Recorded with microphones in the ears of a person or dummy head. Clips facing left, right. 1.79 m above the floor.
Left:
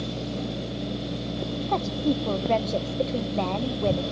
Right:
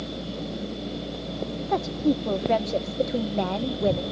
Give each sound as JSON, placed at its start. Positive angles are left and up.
{"t": 1.7, "sound": "a woman speaking", "side_deg": -10, "distance_m": 0.8}